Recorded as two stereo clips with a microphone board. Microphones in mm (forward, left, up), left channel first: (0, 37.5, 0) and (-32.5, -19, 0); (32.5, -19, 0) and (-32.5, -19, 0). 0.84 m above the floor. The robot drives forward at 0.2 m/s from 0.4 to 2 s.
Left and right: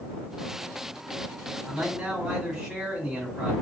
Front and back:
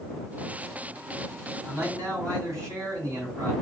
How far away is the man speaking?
About 1.8 m.